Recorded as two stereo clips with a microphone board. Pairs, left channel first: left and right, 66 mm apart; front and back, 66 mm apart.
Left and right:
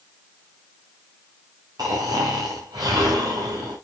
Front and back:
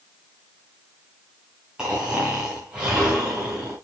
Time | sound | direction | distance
1.8 | snoring | 100° right | 5 m